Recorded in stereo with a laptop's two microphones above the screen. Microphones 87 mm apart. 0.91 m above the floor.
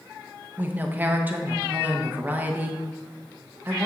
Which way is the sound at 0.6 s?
20° right (ahead or behind).